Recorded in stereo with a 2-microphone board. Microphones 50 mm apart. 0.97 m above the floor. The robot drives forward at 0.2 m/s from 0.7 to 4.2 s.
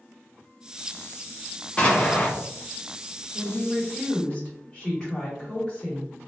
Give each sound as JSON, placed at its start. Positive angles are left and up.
{"t": 1.8, "sound": "an explosion", "side_deg": 20, "distance_m": 0.7}
{"t": 3.3, "sound": "a woman speaking", "side_deg": 5, "distance_m": 2.0}